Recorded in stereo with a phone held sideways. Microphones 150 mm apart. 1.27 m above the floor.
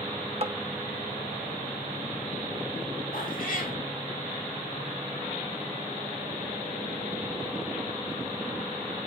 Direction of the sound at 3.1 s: 70° left (ahead or behind).